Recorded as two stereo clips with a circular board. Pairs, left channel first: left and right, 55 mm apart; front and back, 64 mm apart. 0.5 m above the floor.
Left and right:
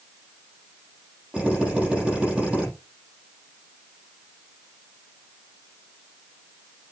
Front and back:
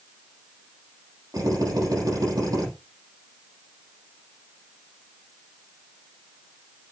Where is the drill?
160° right, 8.5 m.